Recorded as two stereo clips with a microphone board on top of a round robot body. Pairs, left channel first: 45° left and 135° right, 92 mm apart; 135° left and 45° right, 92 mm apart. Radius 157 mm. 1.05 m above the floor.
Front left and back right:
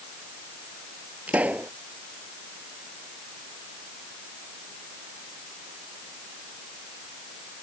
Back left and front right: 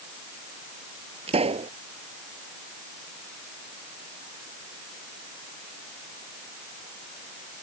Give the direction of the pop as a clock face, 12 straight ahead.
2 o'clock.